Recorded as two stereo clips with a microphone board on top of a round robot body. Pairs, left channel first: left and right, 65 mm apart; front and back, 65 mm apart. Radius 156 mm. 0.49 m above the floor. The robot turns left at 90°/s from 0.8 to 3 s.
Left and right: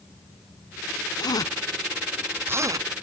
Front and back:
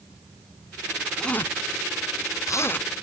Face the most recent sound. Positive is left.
turn(degrees=-80)